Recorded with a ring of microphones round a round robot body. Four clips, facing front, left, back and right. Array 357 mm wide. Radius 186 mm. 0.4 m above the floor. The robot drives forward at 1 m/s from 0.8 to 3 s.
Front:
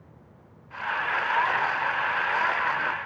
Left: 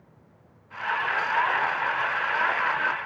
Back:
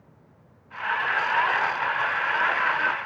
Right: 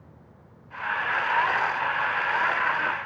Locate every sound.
Only background noise.